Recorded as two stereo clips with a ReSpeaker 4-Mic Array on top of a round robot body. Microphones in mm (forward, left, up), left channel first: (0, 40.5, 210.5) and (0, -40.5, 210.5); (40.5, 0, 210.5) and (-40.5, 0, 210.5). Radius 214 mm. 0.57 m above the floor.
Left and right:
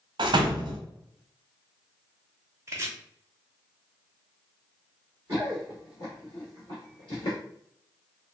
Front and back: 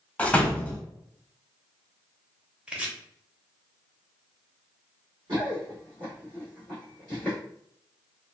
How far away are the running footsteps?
About 0.6 m.